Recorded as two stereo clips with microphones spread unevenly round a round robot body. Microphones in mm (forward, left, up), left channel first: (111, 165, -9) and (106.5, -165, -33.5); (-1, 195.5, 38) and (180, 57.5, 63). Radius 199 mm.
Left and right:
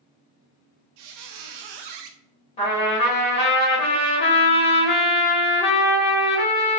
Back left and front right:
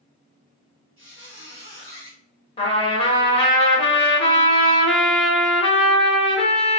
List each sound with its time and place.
1.0 s a squeak: 90° right, 0.5 m
2.6 s a trumpet: 155° left, 1.0 m